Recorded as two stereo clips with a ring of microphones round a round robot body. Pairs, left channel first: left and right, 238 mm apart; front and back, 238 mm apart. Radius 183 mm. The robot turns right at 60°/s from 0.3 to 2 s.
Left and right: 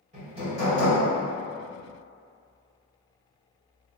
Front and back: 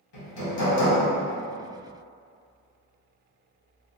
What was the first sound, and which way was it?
Hammering, 20° right.